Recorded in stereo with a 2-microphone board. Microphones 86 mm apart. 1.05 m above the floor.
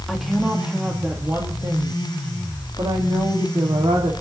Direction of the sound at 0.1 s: Centre (ahead or behind).